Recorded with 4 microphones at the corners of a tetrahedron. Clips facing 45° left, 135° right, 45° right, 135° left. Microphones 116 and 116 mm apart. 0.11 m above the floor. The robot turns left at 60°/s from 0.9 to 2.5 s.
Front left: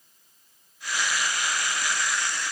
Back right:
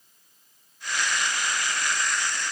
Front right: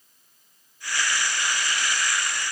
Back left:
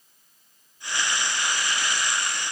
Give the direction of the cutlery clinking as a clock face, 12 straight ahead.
No cutlery clinking in this recording.